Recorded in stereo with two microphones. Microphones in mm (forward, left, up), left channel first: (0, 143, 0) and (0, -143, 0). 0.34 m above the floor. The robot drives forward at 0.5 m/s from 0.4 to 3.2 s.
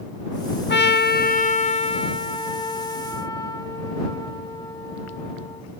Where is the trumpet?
40° left (ahead or behind), 0.5 m; by 5.6 s 15° left (ahead or behind), 1.4 m.